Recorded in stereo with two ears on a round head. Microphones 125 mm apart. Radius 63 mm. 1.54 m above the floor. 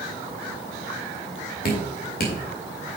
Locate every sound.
1.6 s dripping: 70° left (ahead or behind), 2 m